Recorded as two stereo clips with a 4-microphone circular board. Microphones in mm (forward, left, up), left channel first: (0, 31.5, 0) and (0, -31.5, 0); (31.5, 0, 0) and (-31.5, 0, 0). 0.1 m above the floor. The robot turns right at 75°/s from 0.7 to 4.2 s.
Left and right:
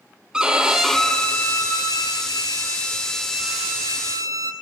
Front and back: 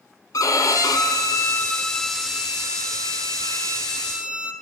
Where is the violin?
15° right, 0.6 m; by 4.5 s 110° right, 0.6 m.